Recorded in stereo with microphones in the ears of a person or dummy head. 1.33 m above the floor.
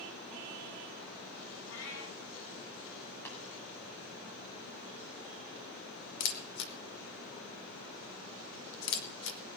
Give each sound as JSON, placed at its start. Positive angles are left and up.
{"t": 1.7, "sound": "a cat meowing", "side_deg": 75, "distance_m": 7.5}
{"t": 3.2, "sound": "tapping", "side_deg": 10, "distance_m": 5.0}
{"t": 6.2, "sound": "a camera shutter", "side_deg": 65, "distance_m": 1.5}